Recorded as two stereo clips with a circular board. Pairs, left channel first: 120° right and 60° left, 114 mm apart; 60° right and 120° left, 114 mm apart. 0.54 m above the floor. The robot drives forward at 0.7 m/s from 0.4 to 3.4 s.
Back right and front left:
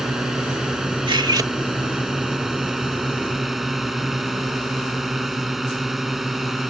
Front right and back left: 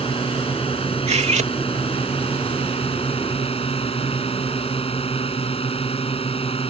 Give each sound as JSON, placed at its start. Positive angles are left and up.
{"t": 0.0, "sound": "a drone", "azimuth_deg": -25}
{"t": 1.1, "sound": "cutlery clinking", "azimuth_deg": 105}